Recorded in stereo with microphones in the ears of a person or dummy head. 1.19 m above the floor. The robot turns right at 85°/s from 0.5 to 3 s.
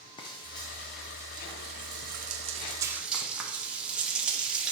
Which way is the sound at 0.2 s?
25° left (ahead or behind).